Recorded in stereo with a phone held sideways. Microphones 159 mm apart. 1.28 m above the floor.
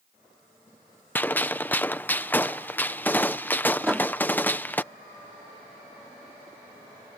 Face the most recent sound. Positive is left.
turn(degrees=-5)  # may be behind; listen again after turning